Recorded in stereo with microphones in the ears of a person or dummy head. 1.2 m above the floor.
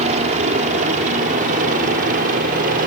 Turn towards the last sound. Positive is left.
turn(degrees=-50)  # may be behind; listen again after turning